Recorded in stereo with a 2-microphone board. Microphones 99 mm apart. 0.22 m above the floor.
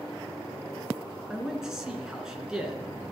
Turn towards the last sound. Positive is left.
turn(degrees=-5)  # may be behind; listen again after turning